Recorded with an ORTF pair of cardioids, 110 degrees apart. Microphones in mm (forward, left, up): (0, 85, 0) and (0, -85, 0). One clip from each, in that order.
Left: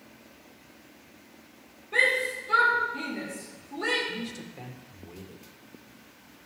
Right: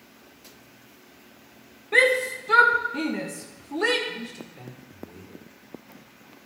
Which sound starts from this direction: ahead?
A man speaking, at 4.1 s.